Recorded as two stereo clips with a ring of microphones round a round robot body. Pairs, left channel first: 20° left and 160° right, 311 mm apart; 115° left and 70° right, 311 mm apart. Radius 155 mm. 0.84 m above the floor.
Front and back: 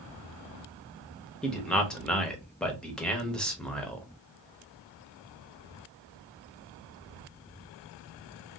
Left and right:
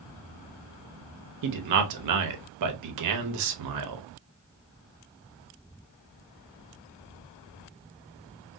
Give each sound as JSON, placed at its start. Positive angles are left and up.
{"t": 1.4, "sound": "a man speaking", "azimuth_deg": -65, "distance_m": 0.8}